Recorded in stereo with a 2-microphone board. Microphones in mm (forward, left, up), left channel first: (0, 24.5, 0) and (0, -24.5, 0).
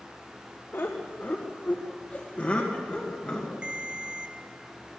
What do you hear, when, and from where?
0.7 s laughter: 55° left (ahead or behind), 1.6 m; by 3.6 s 15° left (ahead or behind), 2.5 m
3.6 s a ringtone: 20° right (ahead or behind), 0.9 m